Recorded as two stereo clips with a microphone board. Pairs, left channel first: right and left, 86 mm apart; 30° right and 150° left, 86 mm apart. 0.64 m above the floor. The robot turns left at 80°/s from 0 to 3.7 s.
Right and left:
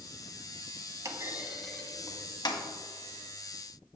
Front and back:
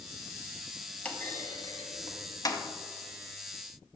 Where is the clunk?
45° left, 0.8 m; by 2.6 s 80° right, 0.8 m.